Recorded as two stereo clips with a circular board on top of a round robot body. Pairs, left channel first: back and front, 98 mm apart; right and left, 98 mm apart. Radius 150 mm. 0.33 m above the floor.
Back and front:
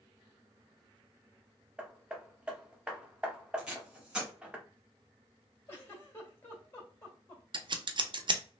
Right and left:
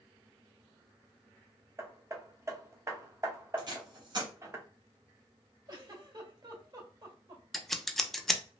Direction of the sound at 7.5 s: Straight ahead.